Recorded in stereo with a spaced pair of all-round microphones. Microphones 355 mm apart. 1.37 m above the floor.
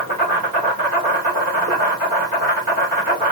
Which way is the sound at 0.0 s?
70° right (ahead or behind).